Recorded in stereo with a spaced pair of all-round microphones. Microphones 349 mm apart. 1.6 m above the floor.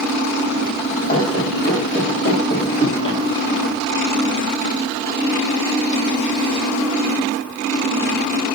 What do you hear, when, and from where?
1.1 s running footsteps: 30° left (ahead or behind), 4 m; by 3.2 s 35° left (ahead or behind), 3 m